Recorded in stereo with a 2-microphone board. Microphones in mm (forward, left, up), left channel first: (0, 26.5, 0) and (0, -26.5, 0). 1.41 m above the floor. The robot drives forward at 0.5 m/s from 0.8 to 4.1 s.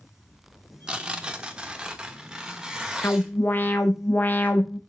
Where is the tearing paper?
20° right (ahead or behind), 1.0 m; by 3.3 s 10° right (ahead or behind), 1.7 m.